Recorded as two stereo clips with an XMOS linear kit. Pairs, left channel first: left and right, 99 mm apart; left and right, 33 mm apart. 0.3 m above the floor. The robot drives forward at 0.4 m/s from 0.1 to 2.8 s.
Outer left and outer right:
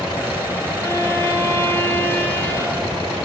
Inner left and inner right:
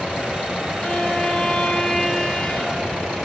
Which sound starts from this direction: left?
A violin, at 0.8 s.